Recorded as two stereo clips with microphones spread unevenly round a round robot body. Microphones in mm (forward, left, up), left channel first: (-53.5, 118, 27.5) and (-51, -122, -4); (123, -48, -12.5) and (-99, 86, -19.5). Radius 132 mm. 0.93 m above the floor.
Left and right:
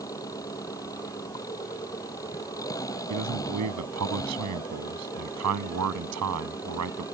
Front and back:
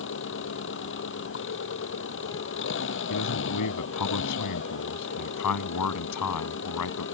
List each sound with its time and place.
0.0 s an engine running: 15° left
3.1 s a man speaking: 55° right